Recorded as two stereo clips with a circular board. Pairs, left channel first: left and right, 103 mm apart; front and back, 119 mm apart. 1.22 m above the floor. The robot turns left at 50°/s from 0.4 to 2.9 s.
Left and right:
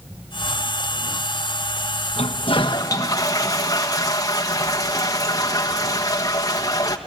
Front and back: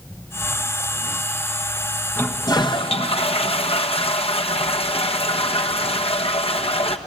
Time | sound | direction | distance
2.2 | a toilet flushing | 75° left | 1.3 m